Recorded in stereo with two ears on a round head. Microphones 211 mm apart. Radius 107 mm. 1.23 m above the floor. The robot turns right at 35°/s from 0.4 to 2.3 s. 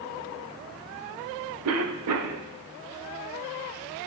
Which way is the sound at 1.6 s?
70° right (ahead or behind).